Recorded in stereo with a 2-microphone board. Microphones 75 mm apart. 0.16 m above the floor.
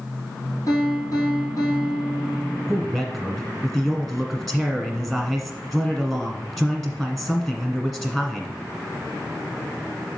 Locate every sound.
0.7 s a piano: 50° left (ahead or behind), 3 m
2.7 s a man speaking: 5° left (ahead or behind), 1.3 m